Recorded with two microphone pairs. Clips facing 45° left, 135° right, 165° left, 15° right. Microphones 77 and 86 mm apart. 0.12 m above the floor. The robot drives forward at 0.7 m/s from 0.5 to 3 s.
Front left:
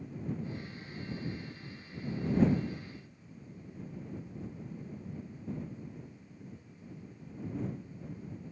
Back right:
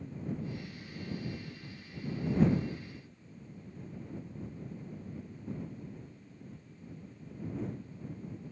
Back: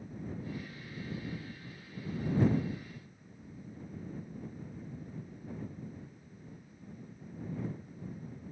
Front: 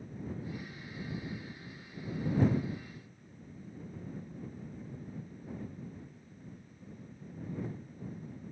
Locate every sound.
Only background noise.